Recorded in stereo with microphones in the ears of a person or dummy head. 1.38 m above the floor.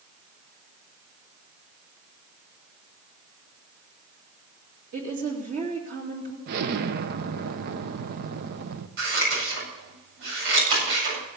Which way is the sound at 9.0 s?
65° right (ahead or behind).